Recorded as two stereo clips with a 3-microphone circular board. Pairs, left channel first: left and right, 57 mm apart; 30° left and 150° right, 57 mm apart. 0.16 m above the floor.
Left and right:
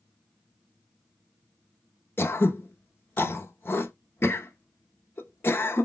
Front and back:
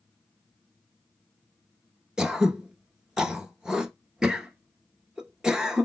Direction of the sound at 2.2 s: 135° left.